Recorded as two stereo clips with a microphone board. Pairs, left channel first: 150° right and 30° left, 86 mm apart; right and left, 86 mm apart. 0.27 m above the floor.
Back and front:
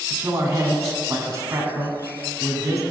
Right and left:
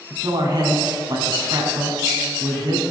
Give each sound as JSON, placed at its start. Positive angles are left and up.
{"t": 0.1, "sound": "a man speaking", "azimuth_deg": 75, "distance_m": 2.5}